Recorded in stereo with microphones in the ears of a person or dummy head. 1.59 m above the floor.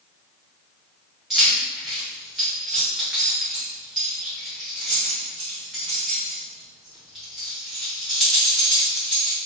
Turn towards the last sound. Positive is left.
turn(degrees=-5)  # may be behind; listen again after turning